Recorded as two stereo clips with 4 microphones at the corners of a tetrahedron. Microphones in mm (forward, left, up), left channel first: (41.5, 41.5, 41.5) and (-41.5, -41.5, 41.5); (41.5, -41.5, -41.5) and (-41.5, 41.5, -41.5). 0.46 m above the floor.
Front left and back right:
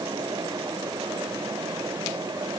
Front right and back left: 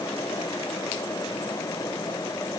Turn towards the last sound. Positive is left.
No sound to turn to.